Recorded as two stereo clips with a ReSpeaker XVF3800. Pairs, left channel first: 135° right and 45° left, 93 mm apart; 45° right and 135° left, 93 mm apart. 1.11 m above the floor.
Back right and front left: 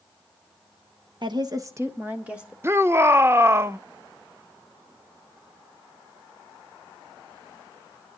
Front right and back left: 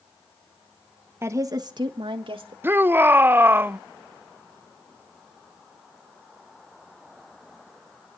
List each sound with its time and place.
1.2 s a woman speaking: 75° left, 1.2 m; by 2.5 s 125° left, 2.0 m
2.6 s a shout: 85° left, 0.5 m